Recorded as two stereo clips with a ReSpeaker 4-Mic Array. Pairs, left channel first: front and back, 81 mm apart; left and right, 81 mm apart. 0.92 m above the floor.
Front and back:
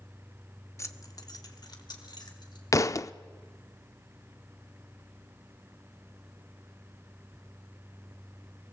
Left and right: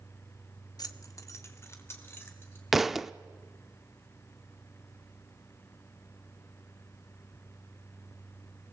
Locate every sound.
0.8 s keys jangling: 55° left, 0.9 m; by 2.6 s 30° left, 3.5 m
2.7 s a thud: 5° right, 0.5 m